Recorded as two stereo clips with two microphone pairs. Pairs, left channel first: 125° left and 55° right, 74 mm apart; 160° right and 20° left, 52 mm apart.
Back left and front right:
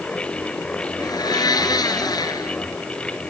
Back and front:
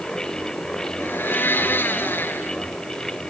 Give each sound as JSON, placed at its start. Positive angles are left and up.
{"t": 1.0, "sound": "a blender", "azimuth_deg": 150, "distance_m": 1.6}